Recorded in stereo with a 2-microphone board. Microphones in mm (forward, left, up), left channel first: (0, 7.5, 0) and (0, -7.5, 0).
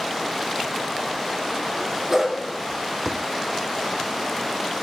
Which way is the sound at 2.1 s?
20° right (ahead or behind).